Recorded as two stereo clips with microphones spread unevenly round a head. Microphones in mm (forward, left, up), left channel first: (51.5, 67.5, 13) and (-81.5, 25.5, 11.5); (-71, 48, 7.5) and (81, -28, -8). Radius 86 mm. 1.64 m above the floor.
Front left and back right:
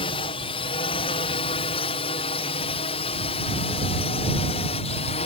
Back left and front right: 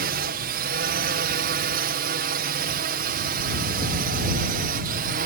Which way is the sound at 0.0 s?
30° right.